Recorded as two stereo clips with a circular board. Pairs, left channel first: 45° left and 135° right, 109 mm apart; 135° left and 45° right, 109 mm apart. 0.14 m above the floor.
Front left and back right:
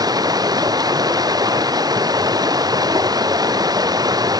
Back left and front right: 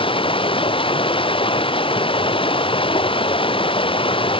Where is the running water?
170° left.